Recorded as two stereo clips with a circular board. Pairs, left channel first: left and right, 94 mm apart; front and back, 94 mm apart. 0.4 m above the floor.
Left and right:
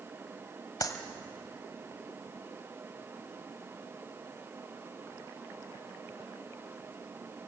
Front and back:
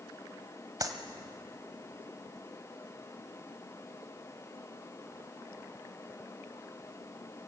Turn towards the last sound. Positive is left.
turn(degrees=135)